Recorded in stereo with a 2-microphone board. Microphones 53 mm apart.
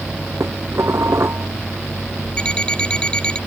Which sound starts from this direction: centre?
An alarm clock, at 2.4 s.